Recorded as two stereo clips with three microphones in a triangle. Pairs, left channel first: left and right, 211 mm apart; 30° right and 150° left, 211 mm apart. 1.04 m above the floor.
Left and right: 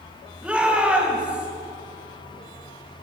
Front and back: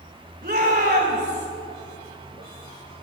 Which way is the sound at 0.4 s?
175° right.